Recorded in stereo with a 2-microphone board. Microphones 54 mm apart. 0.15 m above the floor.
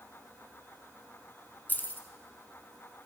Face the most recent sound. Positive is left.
turn(degrees=35)  # may be behind; listen again after turning